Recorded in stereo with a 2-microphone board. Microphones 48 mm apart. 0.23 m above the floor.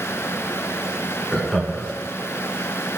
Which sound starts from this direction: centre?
Laughter, at 1.3 s.